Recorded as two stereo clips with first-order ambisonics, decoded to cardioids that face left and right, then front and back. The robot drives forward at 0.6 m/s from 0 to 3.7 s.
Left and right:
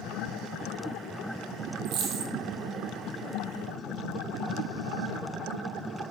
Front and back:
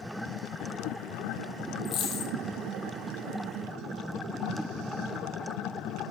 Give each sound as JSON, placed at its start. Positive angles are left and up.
{"t": 1.9, "sound": "a dropped coin", "azimuth_deg": -45, "distance_m": 2.5}